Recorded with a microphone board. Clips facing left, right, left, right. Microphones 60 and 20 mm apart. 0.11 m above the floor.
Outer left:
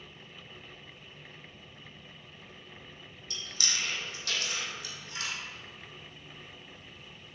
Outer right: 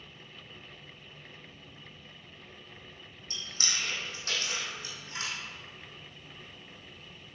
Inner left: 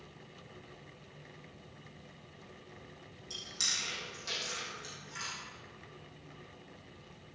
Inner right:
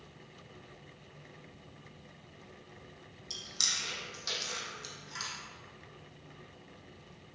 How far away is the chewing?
About 3.5 m.